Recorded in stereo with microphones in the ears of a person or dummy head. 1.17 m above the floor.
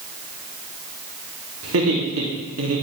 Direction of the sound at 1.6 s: 80° right.